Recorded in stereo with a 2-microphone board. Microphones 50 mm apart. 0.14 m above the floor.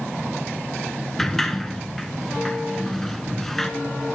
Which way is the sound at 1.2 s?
5° left (ahead or behind).